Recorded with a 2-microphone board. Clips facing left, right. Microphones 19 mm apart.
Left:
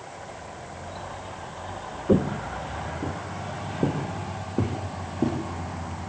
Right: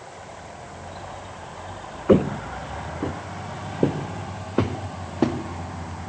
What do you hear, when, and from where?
2.1 s footsteps: 45° right (ahead or behind), 0.9 m; by 5.4 s 50° right (ahead or behind), 4 m